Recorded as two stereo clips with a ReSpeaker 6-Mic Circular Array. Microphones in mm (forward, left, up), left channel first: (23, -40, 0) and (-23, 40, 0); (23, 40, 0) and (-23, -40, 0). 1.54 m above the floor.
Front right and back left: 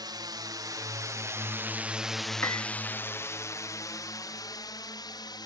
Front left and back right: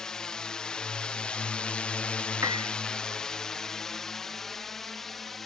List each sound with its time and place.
0.0 s a drone: 140° left; by 5.5 s 30° right
2.4 s a piano: 100° right